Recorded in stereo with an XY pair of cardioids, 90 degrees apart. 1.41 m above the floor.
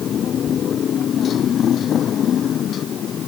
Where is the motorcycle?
65° left; by 3.3 s 70° left.